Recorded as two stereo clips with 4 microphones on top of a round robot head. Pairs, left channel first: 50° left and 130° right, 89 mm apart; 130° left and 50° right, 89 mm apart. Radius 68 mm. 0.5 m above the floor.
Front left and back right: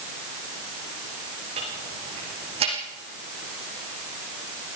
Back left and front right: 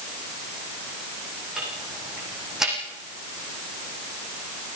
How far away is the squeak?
No squeak in this recording.